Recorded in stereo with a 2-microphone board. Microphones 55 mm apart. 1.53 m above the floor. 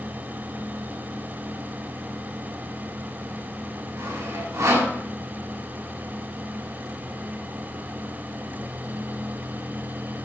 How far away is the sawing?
About 6.5 m.